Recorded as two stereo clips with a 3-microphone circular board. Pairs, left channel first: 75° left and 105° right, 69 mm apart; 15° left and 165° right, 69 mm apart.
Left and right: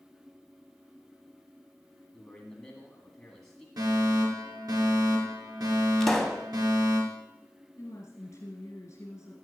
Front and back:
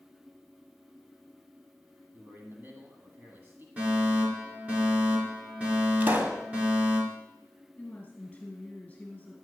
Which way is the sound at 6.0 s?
160° left.